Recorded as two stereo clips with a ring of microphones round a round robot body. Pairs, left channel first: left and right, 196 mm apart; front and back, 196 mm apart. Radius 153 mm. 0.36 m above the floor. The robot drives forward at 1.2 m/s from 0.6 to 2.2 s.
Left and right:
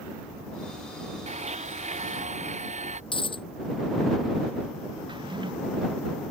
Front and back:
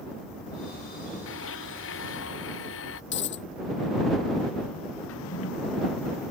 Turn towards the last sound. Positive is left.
turn(degrees=-25)